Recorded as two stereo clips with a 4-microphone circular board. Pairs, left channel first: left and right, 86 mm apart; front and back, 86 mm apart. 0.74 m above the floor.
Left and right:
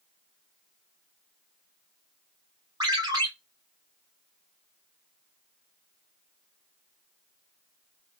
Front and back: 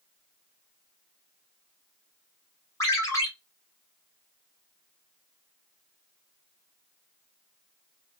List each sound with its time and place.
2.8 s a ringtone: 50° right, 1.3 m